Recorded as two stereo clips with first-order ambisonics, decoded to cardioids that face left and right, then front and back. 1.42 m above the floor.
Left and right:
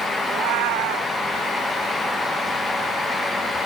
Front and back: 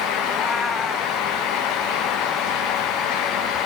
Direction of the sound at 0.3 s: 80° right.